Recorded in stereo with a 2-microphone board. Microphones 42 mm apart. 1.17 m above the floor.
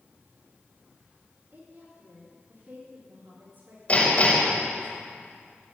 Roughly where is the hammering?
Left.